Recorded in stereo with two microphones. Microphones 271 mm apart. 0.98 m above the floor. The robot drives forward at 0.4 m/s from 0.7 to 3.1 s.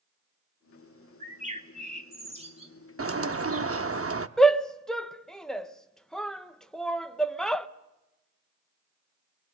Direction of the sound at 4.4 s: Centre (ahead or behind).